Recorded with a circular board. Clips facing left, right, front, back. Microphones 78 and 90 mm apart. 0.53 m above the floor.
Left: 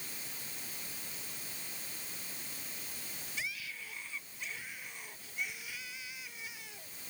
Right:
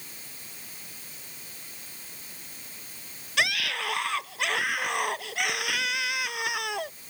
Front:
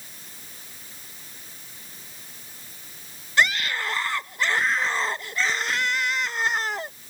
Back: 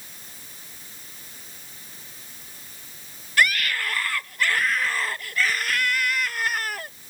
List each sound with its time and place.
3.4 s a scream: 70° right